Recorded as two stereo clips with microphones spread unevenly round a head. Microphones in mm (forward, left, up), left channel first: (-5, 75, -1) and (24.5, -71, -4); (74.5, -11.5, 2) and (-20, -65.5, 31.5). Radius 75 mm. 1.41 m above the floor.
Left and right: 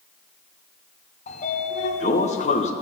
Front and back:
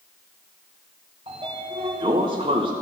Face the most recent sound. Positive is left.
turn(degrees=150)